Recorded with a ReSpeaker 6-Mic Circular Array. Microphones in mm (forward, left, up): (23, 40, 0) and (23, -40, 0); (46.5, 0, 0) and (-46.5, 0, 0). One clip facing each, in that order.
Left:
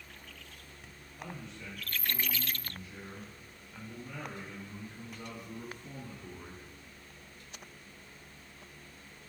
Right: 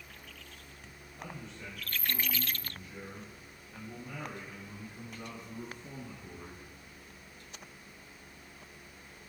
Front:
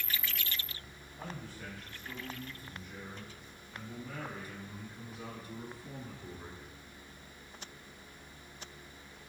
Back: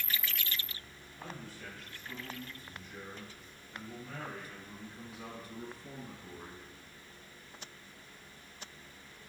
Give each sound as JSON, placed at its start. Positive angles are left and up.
{"t": 1.2, "sound": "a man speaking", "azimuth_deg": -40, "distance_m": 2.0}